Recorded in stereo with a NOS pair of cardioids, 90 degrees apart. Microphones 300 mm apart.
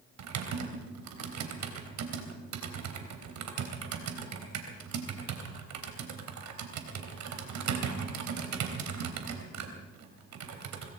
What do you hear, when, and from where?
0.2 s typing on a keyboard: 70° right, 3.5 m